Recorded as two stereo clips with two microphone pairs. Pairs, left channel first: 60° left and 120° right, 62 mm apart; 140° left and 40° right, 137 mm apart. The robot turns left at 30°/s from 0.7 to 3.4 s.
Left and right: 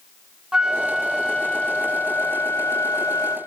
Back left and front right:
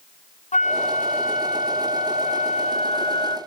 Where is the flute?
165° left, 1.3 m; by 3.4 s 85° left, 1.3 m.